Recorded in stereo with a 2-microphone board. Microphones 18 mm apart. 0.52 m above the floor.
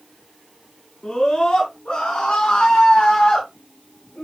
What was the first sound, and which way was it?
A scream, 60° left (ahead or behind).